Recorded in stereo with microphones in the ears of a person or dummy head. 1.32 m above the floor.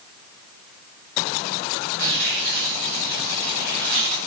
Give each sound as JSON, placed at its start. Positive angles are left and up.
{"t": 2.0, "sound": "tearing paper", "side_deg": -60, "distance_m": 7.0}